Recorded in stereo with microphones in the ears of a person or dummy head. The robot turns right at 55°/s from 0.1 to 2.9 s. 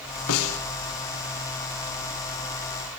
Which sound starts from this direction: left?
A snare drum, at 0.3 s.